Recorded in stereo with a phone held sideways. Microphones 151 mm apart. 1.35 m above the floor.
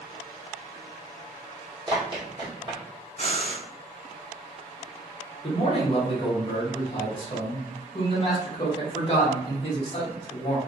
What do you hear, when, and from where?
1.9 s running footsteps: 35° right (ahead or behind), 1.8 m
3.2 s breathing: 55° left (ahead or behind), 1.5 m
5.4 s a man speaking: 35° left (ahead or behind), 1.1 m